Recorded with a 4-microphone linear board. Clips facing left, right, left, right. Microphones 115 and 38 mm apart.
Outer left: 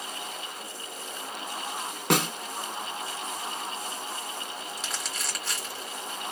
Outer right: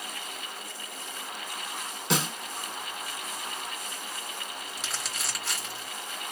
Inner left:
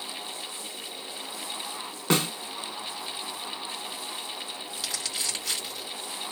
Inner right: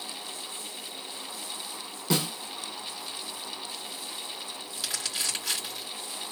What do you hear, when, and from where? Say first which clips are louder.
2.1 s a snare drum: outer left 4 dB, inner left 3 dB; 55° left (ahead or behind), 1.2 m
4.8 s crumpling: outer left 1 dB, inner right 1 dB; centre (ahead or behind), 2.5 m